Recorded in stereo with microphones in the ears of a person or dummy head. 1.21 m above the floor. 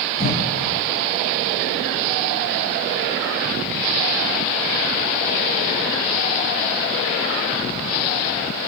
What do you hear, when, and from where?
0.2 s a cough: 40° left (ahead or behind), 5 m